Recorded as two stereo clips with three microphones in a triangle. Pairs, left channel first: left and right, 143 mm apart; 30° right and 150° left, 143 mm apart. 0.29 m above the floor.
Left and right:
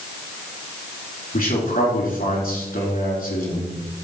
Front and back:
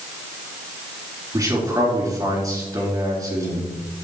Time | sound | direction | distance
1.3 | a man speaking | 85° left | 4 m